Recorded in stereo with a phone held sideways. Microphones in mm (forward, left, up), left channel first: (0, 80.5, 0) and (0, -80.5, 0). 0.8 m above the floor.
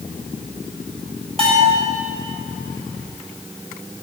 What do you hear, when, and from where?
1.4 s a bell: 35° right (ahead or behind), 7 m